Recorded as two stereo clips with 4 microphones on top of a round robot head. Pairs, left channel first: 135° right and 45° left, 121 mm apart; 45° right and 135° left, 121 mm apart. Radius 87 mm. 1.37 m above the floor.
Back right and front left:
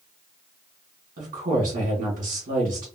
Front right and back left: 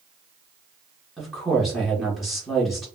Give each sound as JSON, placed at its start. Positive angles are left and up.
{"t": 1.2, "sound": "a woman speaking", "azimuth_deg": 45, "distance_m": 1.1}